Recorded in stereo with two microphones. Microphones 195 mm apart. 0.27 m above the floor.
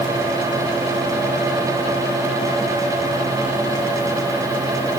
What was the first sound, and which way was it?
Only background noise.